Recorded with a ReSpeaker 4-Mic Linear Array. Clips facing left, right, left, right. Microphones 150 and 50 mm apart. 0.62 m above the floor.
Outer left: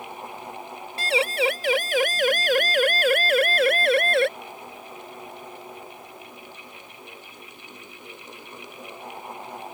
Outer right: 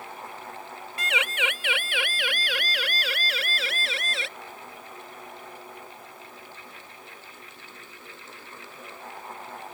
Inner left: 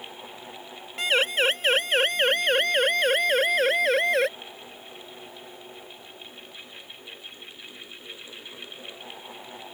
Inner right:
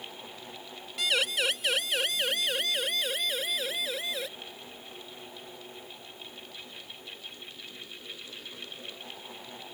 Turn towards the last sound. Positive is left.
turn(degrees=60)  # may be behind; listen again after turning